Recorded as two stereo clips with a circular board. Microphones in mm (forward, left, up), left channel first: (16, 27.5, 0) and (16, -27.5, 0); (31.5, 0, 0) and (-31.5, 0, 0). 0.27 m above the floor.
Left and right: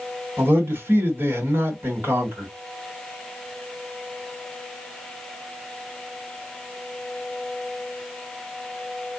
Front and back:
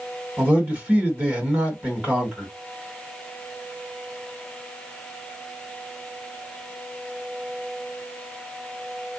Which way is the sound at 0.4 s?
125° right.